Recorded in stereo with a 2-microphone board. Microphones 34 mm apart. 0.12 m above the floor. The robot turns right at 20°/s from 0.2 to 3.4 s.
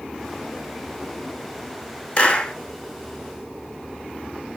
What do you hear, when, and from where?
2.2 s a clap: 35° left (ahead or behind), 1.2 m